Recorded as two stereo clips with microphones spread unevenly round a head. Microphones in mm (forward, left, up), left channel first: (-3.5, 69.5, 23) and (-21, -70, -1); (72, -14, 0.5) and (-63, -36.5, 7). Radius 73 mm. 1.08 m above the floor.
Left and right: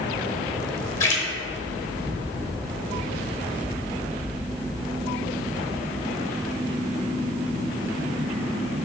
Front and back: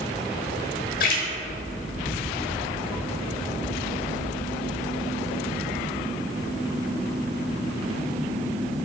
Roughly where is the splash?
Ahead left.